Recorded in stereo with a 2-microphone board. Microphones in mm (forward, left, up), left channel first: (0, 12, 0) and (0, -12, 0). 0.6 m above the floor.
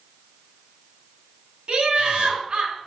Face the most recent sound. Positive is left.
turn(degrees=-55)  # may be behind; listen again after turning